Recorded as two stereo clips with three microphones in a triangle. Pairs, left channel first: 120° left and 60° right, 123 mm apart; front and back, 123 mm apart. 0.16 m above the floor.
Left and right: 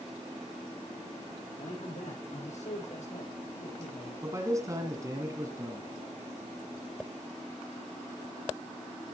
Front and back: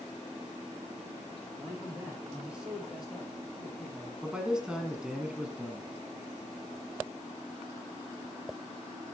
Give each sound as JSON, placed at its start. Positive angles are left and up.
{"t": 1.6, "sound": "a man speaking", "azimuth_deg": 105, "distance_m": 8.0}
{"t": 4.2, "sound": "a man speaking", "azimuth_deg": -100, "distance_m": 1.8}